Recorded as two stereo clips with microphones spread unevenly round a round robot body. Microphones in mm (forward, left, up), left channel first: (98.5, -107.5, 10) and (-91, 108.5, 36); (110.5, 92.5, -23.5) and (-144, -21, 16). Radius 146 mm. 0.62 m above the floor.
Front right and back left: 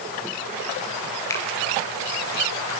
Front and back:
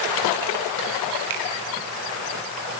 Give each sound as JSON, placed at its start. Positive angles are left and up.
{"t": 1.3, "sound": "a finger snap", "azimuth_deg": -130, "distance_m": 6.5}